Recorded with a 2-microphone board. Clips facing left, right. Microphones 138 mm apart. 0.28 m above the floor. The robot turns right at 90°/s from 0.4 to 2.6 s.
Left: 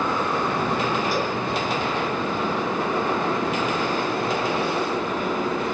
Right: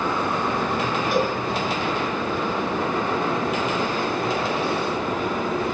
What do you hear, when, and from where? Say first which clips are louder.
1.1 s a cowbell: right 3 dB; 60° right (ahead or behind), 2.5 m; by 1.4 s 50° right (ahead or behind), 2.5 m